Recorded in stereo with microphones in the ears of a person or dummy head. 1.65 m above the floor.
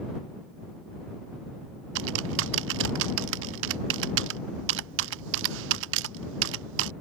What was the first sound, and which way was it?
Typing on a keyboard, 70° right (ahead or behind).